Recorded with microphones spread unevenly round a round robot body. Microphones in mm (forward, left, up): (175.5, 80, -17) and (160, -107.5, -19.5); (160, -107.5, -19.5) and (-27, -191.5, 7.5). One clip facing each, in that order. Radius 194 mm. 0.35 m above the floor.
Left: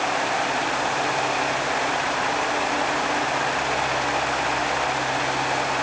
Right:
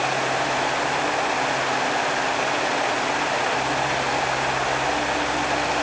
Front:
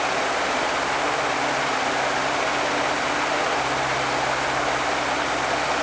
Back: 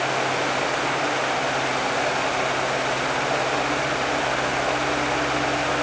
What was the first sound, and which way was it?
Only background noise.